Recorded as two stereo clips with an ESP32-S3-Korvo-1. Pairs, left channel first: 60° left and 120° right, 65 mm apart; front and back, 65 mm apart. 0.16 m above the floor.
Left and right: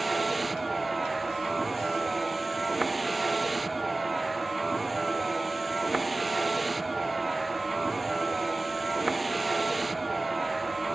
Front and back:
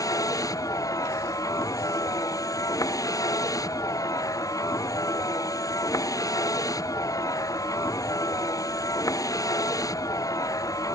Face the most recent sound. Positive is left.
turn(degrees=-30)